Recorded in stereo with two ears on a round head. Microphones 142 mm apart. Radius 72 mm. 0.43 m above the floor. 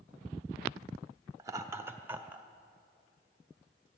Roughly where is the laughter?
Right.